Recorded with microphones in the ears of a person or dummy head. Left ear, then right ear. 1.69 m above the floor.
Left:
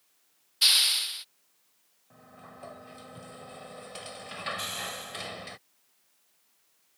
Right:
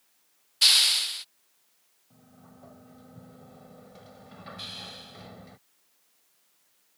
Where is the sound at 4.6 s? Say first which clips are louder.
Left 5 dB; 30° left (ahead or behind).